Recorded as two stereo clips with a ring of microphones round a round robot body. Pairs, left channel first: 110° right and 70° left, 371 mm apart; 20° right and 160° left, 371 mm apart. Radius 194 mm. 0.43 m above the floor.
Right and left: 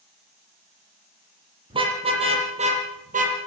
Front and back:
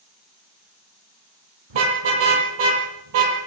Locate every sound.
1.7 s a car horn: 145° left, 6.5 m; by 3.4 s 135° left, 6 m